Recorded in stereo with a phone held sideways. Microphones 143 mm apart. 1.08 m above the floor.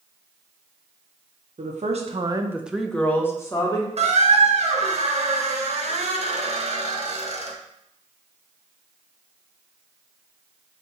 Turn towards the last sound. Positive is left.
turn(degrees=-50)  # may be behind; listen again after turning